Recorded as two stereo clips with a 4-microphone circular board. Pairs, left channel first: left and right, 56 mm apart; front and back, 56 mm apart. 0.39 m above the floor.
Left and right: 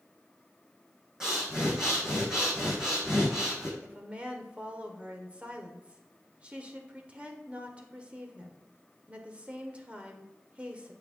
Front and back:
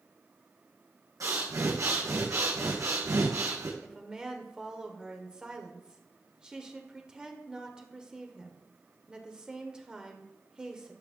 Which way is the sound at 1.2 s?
170° right.